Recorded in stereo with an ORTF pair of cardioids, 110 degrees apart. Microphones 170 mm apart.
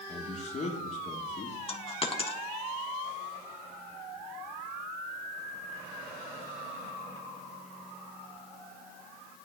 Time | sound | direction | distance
0.1 | a man speaking | 40° left | 1.6 m
1.7 | a dropped coin | 35° left | 1.3 m